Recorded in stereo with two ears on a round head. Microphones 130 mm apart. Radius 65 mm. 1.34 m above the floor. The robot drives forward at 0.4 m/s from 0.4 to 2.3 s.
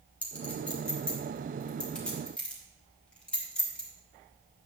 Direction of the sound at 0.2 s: 10° left (ahead or behind).